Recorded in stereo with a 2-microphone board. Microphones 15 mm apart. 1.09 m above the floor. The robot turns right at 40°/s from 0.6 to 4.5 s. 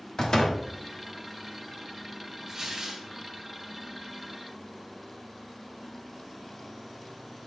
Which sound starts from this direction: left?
A door slam, at 0.2 s.